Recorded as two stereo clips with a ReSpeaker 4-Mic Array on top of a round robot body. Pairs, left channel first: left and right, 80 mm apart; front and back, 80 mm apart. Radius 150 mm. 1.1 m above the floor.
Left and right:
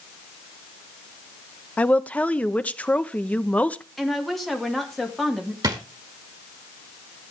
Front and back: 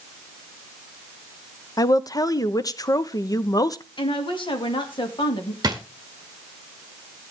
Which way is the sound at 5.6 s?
130° right.